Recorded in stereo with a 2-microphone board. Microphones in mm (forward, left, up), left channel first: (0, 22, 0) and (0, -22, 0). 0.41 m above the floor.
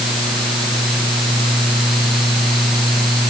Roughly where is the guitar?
No guitar in this recording.